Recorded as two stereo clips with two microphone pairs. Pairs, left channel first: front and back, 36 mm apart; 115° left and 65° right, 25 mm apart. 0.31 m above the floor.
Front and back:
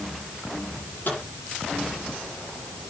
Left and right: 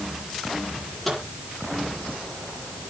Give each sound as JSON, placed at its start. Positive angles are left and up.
{"t": 0.7, "sound": "a microwave", "azimuth_deg": 30, "distance_m": 8.5}